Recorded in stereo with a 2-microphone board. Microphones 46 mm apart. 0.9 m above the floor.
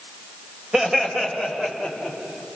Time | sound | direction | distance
0.7 | laughter | 15° right (ahead or behind) | 4 m